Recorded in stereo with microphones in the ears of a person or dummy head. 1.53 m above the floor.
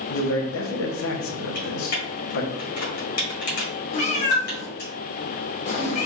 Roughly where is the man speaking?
Left.